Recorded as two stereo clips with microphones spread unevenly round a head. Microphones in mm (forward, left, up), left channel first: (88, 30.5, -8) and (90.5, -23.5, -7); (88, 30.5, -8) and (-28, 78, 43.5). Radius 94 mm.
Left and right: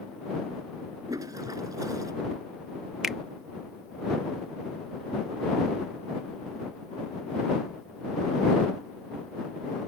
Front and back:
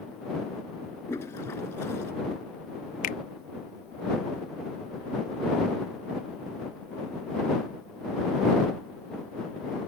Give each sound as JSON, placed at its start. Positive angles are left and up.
{"t": 1.1, "sound": "a toilet flushing", "azimuth_deg": -100}
{"t": 3.0, "sound": "a finger snap", "azimuth_deg": -5}